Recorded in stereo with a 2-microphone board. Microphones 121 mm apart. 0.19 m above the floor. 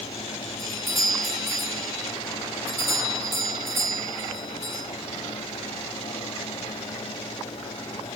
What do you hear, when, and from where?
0.6 s a doorbell: 25° right (ahead or behind), 10 m